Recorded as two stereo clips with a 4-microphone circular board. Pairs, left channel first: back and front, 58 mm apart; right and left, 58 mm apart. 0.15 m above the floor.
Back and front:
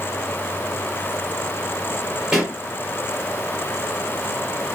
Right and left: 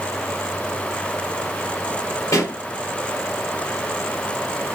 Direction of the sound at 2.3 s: 75° right.